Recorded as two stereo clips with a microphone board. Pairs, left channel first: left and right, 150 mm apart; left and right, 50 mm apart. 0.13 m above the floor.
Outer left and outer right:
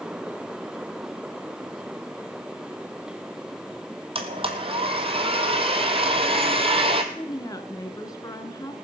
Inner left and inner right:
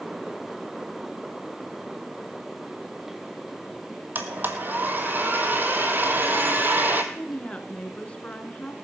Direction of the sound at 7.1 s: 25° left (ahead or behind).